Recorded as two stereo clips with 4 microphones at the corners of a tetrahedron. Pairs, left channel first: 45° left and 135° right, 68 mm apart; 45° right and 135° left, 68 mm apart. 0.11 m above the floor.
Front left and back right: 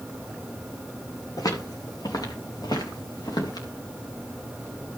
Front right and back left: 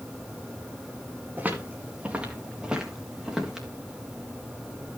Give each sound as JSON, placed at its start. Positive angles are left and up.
{"t": 1.4, "sound": "footsteps", "azimuth_deg": 70, "distance_m": 3.0}